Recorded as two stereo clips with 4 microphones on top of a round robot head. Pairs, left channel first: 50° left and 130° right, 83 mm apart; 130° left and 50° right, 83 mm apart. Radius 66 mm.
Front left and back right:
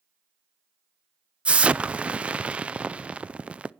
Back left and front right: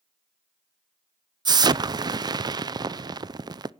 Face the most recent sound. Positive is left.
turn(degrees=-55)